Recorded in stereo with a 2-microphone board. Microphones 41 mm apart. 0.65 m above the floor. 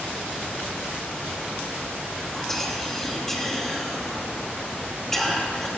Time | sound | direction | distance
2.3 | whispering | 10° left (ahead or behind) | 4.5 m